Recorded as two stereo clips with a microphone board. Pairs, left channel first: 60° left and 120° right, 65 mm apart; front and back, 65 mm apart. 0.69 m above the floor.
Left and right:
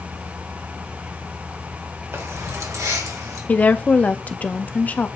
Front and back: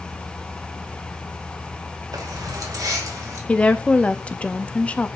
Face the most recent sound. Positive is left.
turn(degrees=40)